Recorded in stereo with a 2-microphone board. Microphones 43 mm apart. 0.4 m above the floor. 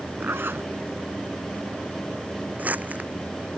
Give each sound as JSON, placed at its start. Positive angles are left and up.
{"t": 0.2, "sound": "a zipper", "side_deg": -65}
{"t": 2.6, "sound": "crumpling", "side_deg": -40}